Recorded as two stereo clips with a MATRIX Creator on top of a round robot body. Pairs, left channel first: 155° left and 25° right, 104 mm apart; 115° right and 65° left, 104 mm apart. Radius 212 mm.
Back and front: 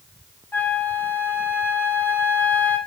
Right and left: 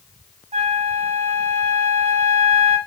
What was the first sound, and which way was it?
A flute, 85° left.